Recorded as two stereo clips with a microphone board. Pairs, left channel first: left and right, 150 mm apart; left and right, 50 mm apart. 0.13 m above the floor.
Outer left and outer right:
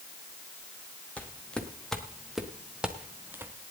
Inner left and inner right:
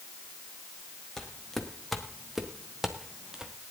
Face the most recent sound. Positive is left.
turn(degrees=-15)  # may be behind; listen again after turning